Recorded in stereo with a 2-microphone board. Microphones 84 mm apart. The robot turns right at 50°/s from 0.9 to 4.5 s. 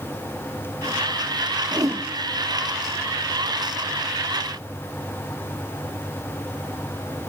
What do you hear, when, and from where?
1.7 s a whoosh: 45° right (ahead or behind), 1.5 m; by 2.0 s 30° right (ahead or behind), 1.5 m